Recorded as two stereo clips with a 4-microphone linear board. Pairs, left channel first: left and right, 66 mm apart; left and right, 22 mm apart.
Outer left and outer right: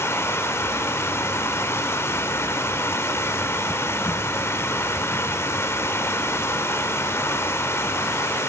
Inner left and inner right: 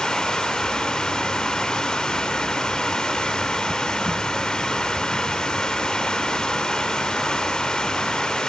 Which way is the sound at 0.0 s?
40° left (ahead or behind).